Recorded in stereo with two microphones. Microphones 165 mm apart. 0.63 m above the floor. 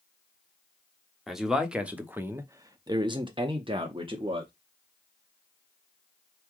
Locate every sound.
1.3 s a man speaking: centre (ahead or behind), 1.1 m; by 4.5 s 30° right (ahead or behind), 1.0 m